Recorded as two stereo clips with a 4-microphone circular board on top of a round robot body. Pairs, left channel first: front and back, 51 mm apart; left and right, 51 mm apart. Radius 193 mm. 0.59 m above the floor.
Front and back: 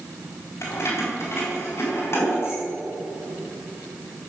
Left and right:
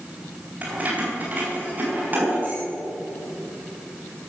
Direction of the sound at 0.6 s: 30° right.